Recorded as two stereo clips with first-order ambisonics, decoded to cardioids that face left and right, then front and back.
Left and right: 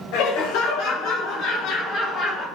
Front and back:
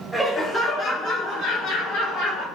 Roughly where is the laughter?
Left.